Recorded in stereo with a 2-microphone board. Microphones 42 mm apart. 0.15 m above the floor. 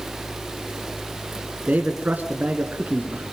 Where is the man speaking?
45° right (ahead or behind), 1.8 m.